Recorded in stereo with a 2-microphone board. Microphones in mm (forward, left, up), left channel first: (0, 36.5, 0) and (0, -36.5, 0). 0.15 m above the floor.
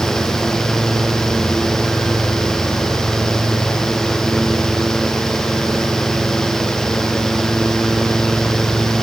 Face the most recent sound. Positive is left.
No sound to turn to.